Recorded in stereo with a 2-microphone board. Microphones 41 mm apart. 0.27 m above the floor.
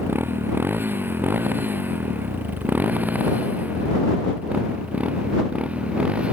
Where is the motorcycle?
60° right (ahead or behind); by 6.3 s 30° right (ahead or behind).